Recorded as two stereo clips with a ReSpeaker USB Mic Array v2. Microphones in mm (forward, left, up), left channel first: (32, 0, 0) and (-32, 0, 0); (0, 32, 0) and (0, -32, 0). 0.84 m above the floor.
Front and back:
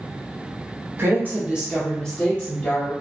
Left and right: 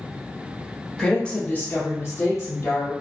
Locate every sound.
1.0 s a woman speaking: 170° left, 0.9 m; by 2.9 s 55° left, 1.2 m